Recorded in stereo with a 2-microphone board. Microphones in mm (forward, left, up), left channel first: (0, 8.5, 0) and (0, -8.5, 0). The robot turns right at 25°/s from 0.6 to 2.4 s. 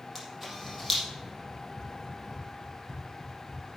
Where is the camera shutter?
15° right (ahead or behind), 5 m; by 1.0 s 5° right (ahead or behind), 5 m.